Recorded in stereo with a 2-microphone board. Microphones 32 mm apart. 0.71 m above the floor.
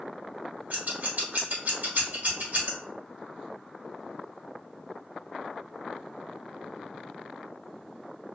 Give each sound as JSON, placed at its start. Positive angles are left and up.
{"t": 0.7, "sound": "scissors", "side_deg": -55, "distance_m": 0.9}